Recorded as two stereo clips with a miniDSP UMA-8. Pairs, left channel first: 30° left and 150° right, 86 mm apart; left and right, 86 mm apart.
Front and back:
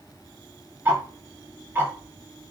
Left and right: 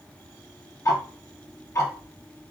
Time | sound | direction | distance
0.8 | ticking | 145° left | 0.7 m